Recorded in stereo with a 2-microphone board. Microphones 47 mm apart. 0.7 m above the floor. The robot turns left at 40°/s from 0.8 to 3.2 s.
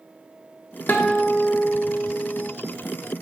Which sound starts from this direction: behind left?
A guitar, at 0.9 s.